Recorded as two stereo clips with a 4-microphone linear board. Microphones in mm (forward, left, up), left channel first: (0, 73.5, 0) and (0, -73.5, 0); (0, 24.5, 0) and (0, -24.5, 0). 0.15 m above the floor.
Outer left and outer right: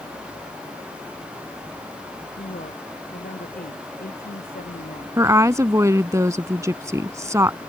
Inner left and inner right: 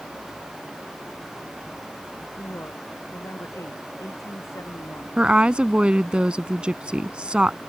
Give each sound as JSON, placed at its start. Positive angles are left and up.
{"t": 2.4, "sound": "a woman speaking", "side_deg": 75}
{"t": 5.2, "sound": "a woman speaking", "side_deg": -20}